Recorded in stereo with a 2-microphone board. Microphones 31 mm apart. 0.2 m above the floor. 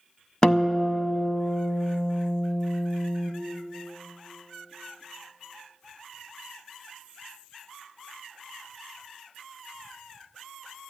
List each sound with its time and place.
0.4 s a guitar: 30° left (ahead or behind), 0.7 m